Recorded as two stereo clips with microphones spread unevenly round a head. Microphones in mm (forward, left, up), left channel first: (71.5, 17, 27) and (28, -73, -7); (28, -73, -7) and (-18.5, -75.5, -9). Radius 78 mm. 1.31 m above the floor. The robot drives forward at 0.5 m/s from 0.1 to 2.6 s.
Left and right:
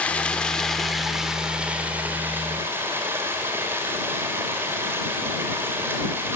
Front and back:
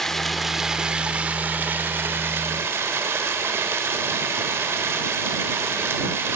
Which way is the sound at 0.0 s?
80° left.